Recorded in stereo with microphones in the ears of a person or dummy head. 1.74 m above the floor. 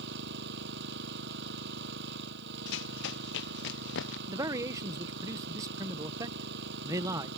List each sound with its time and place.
0.0 s an engine running: 70° right (ahead or behind)
2.7 s running footsteps: 75° left (ahead or behind)
4.3 s a man speaking: 25° right (ahead or behind)